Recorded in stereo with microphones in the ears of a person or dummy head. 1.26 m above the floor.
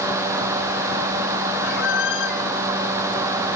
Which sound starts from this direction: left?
A squeak, at 1.6 s.